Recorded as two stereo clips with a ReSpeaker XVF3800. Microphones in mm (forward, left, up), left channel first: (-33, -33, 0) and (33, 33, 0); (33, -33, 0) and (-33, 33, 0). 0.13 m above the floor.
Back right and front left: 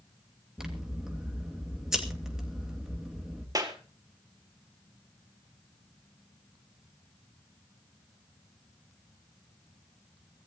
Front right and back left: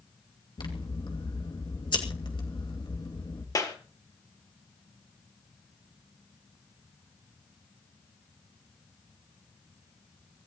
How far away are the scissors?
About 2.5 m.